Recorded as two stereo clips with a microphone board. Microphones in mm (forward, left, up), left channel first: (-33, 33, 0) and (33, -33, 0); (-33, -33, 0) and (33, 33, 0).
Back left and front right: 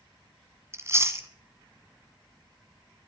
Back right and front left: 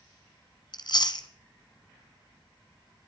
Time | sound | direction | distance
0.7 | chewing | 105° right | 1.2 m